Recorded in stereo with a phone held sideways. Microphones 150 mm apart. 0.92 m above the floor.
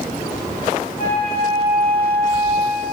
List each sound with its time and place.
1.0 s a flute: 45° left (ahead or behind), 3 m